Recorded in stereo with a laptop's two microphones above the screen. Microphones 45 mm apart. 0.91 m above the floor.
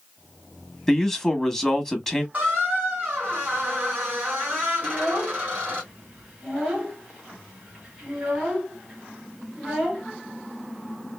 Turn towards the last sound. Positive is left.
turn(degrees=-20)  # may be behind; listen again after turning